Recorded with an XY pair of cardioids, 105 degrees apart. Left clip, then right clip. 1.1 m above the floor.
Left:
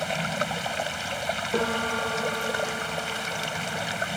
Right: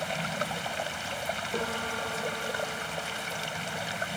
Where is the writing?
I don't hear writing.